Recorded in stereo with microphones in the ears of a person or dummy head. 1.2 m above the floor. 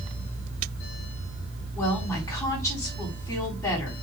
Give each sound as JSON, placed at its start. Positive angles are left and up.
{"t": 1.8, "sound": "a woman speaking", "side_deg": 20, "distance_m": 4.0}